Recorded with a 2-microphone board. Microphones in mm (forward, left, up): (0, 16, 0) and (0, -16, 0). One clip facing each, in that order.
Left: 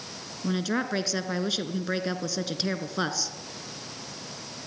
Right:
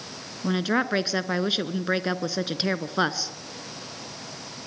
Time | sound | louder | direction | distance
0.4 | a woman speaking | right 4 dB | 25° right (ahead or behind) | 1.3 m